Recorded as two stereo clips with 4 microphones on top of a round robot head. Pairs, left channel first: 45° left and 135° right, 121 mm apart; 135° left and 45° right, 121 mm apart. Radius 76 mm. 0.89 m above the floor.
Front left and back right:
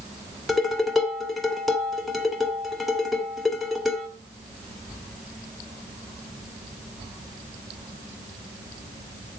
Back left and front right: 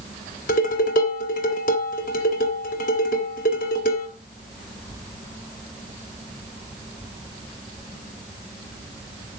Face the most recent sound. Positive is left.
turn(degrees=135)